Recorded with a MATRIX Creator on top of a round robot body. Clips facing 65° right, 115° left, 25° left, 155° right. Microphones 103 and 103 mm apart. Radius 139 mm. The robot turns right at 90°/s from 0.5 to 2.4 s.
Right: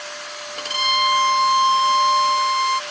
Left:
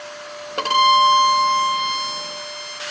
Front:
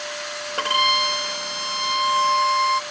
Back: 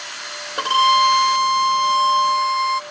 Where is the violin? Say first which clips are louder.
Left 8 dB, back 7 dB; 125° left; by 2.8 s 70° right.